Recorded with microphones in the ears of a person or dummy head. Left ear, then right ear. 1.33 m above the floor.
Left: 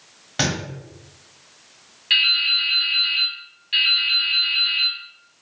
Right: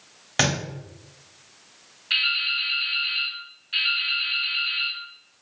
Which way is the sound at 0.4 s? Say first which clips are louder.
Right 1 dB; 20° right (ahead or behind).